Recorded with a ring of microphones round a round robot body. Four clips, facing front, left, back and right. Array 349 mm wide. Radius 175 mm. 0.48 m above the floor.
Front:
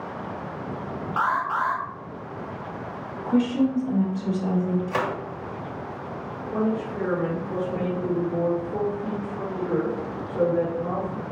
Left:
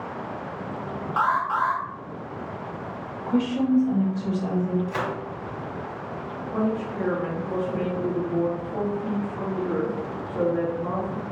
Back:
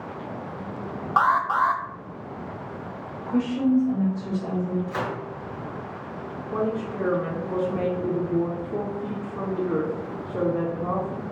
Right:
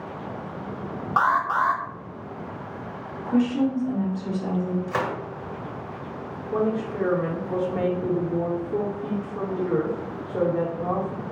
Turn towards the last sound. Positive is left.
turn(degrees=-125)